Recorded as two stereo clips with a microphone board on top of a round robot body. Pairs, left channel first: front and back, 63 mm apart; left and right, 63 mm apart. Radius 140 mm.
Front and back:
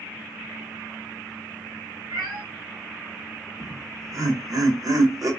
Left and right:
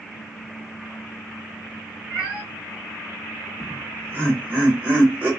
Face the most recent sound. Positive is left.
turn(degrees=-150)